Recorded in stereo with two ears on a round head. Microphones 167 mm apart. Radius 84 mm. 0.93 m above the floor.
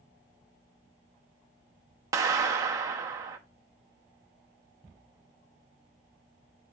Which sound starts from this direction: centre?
A clap, at 2.1 s.